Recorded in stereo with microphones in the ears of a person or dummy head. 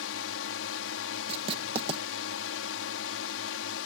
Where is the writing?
35° right (ahead or behind).